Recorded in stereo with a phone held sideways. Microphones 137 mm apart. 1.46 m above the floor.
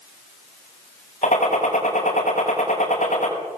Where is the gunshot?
65° left (ahead or behind), 6 m.